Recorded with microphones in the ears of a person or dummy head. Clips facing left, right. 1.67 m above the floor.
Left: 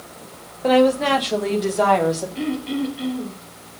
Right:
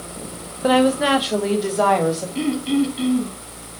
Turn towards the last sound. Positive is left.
turn(degrees=-70)  # may be behind; listen again after turning